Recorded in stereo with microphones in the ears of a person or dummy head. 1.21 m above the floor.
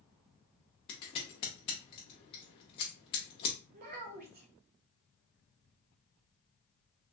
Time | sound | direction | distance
0.9 | scissors | 15° left (ahead or behind) | 0.5 m
3.7 | a child speaking | 45° right (ahead or behind) | 0.7 m